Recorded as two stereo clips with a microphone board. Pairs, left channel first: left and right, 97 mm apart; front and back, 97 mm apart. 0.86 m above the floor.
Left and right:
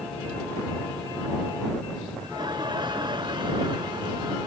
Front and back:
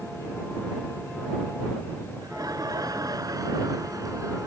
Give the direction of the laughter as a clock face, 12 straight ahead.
4 o'clock.